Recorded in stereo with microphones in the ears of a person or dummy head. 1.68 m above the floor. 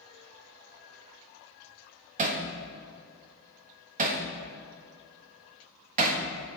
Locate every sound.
2.2 s hammering: 45° right (ahead or behind), 1.5 m